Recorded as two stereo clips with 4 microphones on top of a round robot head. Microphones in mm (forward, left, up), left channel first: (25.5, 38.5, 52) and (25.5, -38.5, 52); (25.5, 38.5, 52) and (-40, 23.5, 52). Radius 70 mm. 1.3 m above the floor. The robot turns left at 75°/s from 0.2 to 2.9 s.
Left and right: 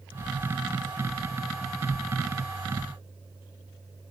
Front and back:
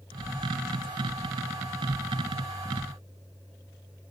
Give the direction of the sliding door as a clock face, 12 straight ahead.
No sliding door in this recording.